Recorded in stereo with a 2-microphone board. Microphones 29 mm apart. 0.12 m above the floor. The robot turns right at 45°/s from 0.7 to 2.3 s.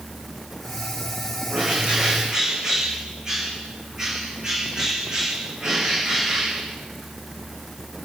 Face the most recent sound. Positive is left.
turn(degrees=-20)